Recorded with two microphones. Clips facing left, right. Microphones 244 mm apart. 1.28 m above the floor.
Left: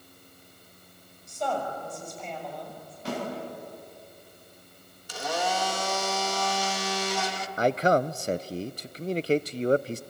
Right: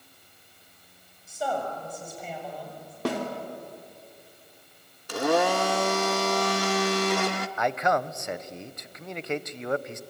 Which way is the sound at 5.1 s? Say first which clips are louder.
Right 8 dB; 60° right (ahead or behind).